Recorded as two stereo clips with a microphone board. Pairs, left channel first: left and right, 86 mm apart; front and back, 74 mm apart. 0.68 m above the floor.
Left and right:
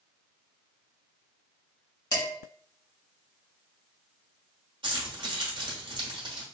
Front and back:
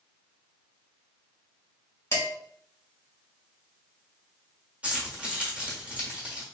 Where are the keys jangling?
105° right, 1.1 m.